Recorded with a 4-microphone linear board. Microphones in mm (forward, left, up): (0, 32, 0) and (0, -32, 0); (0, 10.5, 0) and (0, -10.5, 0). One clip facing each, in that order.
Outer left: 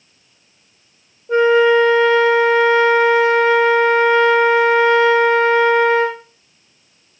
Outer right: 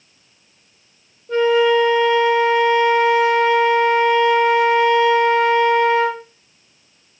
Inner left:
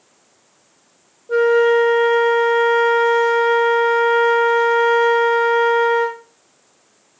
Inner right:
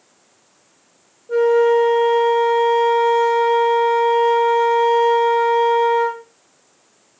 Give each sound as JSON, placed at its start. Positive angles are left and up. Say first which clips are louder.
{"t": 1.3, "sound": "a flute", "louder": "outer left 3 dB, even", "side_deg": 20, "distance_m": 1.0}